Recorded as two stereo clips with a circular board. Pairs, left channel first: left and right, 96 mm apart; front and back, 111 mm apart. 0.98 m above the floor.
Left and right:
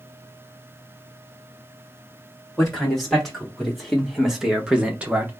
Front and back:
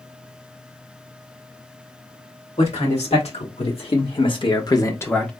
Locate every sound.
2.6 s a man speaking: 5° left, 2 m; by 5.3 s 65° right, 0.7 m